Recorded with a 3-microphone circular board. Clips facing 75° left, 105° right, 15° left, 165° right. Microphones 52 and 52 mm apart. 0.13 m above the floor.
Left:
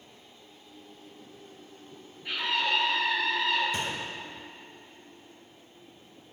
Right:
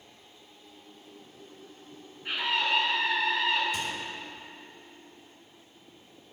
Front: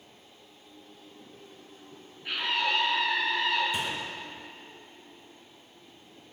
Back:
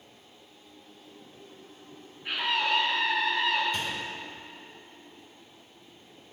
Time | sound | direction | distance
2.2 | a scream | 105° right | 1.2 m
3.7 | a gunshot | 85° left | 0.6 m